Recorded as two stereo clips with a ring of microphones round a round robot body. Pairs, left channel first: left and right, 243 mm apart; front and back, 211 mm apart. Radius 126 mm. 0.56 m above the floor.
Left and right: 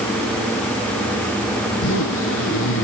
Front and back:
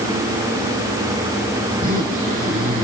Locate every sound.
1.7 s a zipper: 130° left, 5.5 m